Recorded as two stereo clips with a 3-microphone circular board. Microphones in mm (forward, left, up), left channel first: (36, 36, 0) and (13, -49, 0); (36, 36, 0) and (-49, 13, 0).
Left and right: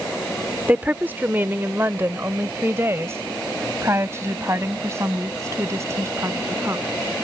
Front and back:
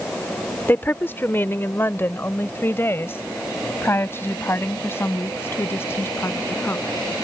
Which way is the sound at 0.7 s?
40° right.